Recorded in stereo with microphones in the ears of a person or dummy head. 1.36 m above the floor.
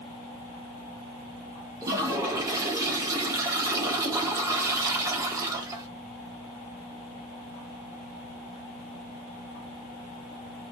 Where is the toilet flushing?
20° right (ahead or behind), 0.7 m.